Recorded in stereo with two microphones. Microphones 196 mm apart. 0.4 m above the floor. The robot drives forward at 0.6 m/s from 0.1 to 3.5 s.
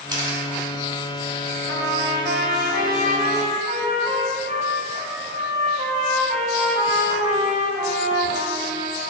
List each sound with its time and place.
0.1 s a camera shutter: 20° right (ahead or behind), 1.2 m; by 0.4 s 25° right (ahead or behind), 1.1 m
1.7 s a trumpet: 75° right (ahead or behind), 0.8 m; by 9.0 s 40° right (ahead or behind), 1.3 m